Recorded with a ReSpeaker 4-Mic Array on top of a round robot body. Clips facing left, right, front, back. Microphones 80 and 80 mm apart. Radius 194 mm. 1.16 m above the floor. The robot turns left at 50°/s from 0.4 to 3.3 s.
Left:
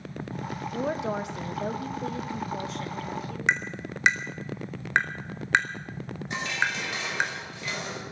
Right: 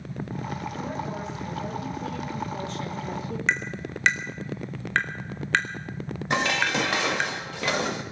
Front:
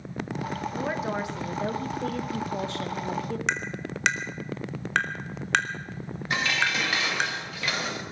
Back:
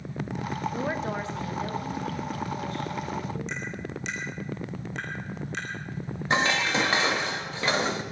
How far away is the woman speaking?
About 1.8 m.